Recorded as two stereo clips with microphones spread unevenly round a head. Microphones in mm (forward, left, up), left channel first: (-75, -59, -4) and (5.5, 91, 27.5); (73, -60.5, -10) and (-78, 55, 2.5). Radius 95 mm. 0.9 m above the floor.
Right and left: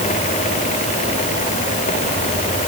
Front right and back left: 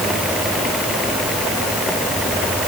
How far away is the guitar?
I don't hear a guitar.